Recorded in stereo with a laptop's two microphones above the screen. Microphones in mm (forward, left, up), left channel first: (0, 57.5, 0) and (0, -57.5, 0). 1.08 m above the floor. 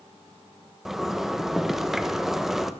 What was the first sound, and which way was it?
A zipper, 5° right (ahead or behind).